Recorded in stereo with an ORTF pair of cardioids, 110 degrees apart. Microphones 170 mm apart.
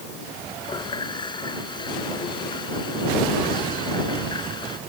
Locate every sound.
0.6 s a running tap: 25° left